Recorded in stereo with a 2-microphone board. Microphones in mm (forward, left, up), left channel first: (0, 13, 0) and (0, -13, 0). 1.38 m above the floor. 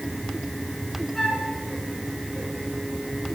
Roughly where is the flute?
Centre.